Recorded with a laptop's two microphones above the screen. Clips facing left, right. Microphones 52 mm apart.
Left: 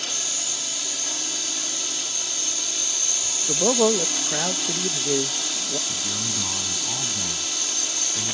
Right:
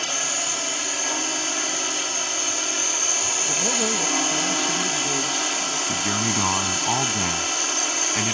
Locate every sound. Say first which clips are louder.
0.0 s a drone: right 6 dB; 45° right (ahead or behind)
3.5 s a man speaking: left 7 dB; 60° left (ahead or behind)
5.9 s a man speaking: right 7 dB; 60° right (ahead or behind)